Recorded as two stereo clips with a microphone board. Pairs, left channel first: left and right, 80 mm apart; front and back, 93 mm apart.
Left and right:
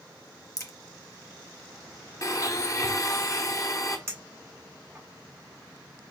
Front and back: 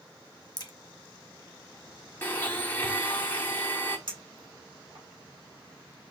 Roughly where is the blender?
Ahead left.